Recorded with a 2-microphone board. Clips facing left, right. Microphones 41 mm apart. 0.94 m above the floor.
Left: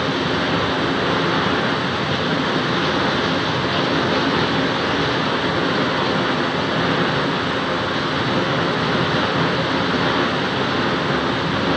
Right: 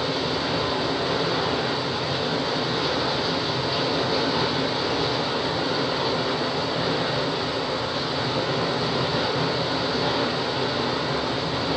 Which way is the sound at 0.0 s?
50° left (ahead or behind).